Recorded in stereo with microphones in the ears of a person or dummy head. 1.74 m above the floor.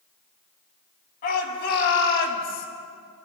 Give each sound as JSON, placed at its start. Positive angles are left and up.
{"t": 1.2, "sound": "a shout", "side_deg": 55, "distance_m": 3.0}